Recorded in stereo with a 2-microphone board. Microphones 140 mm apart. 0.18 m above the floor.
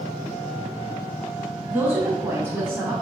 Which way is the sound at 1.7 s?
15° right (ahead or behind).